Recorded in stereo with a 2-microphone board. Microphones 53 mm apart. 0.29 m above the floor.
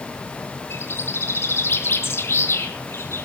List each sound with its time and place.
0.7 s a bird: 55° left (ahead or behind), 3.5 m